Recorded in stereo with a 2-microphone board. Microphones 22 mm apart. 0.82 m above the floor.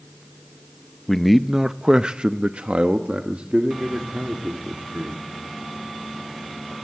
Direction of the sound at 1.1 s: 15° left (ahead or behind).